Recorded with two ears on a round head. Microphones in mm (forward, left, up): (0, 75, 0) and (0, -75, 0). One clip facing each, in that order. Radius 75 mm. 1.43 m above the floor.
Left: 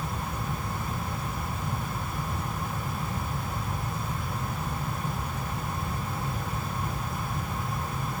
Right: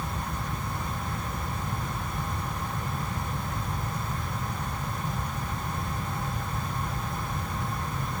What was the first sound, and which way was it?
Only background noise.